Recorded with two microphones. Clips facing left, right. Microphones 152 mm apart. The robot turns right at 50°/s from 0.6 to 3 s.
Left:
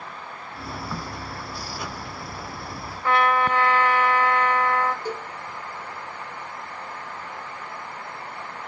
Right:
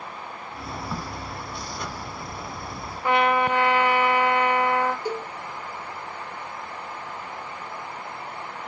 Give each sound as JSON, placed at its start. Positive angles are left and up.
{"t": 0.9, "sound": "a crack", "side_deg": -20, "distance_m": 0.7}
{"t": 3.0, "sound": "a trumpet", "side_deg": -15, "distance_m": 0.9}
{"t": 5.0, "sound": "a cowbell", "side_deg": -10, "distance_m": 1.1}